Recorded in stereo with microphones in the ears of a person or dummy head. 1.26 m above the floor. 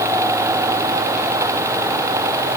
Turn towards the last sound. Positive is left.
No sound to turn to.